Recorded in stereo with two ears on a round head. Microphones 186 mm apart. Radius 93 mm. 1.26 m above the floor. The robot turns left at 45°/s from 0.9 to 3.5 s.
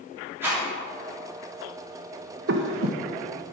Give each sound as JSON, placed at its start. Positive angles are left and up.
{"t": 0.4, "sound": "a rattle", "side_deg": -10, "distance_m": 3.0}
{"t": 2.5, "sound": "breathing", "side_deg": -55, "distance_m": 0.8}